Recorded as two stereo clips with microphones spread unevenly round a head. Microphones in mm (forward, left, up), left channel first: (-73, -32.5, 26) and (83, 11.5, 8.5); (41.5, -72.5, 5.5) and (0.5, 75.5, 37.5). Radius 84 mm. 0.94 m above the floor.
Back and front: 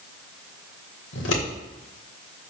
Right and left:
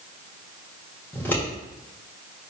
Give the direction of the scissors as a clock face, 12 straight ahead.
5 o'clock.